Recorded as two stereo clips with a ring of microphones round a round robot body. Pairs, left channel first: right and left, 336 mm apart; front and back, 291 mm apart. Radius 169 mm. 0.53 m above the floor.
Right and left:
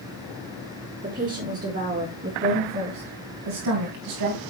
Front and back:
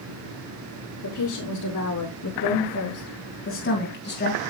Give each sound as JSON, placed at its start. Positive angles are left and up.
{"t": 1.0, "sound": "a woman speaking", "azimuth_deg": 20, "distance_m": 5.5}